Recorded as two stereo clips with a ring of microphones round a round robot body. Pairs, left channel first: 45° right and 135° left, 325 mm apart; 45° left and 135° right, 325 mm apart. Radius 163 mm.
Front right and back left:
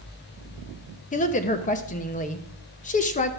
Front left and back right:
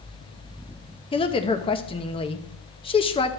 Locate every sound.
1.1 s a woman speaking: 10° right, 0.8 m